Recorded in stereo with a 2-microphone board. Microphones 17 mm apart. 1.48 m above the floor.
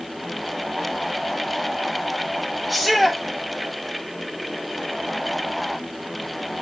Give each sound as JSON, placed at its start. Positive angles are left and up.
{"t": 2.7, "sound": "a shout", "side_deg": 5, "distance_m": 2.5}